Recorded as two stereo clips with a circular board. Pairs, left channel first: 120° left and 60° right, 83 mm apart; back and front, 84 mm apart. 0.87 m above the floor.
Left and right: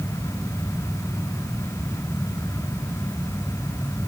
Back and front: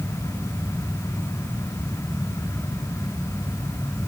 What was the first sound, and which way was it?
Only background noise.